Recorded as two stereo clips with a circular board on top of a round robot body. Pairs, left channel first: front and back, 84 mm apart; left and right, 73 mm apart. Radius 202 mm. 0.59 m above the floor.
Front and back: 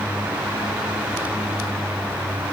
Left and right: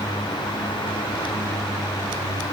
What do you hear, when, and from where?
Only background noise.